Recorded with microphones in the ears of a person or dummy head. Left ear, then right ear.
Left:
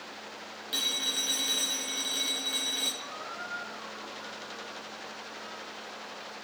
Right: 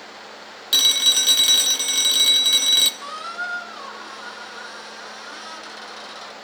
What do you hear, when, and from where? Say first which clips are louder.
0.7 s a phone ringing: right 14 dB; 40° right (ahead or behind), 0.6 m
3.0 s a squeak: right 10 dB; 65° right (ahead or behind), 0.5 m